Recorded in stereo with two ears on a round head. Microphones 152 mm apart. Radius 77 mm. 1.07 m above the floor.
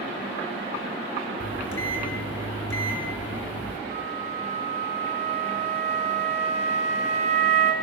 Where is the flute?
40° right (ahead or behind), 3 m.